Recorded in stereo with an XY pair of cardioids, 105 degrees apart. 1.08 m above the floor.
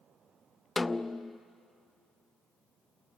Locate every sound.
0.8 s a snare drum: 20° left, 0.5 m